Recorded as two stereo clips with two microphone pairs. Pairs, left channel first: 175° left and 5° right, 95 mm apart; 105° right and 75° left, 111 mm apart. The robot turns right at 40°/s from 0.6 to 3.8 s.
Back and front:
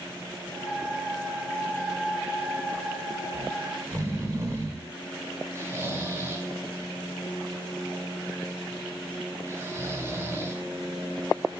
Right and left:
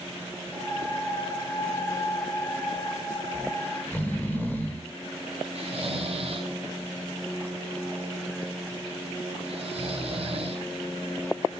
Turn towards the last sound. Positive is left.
turn(degrees=55)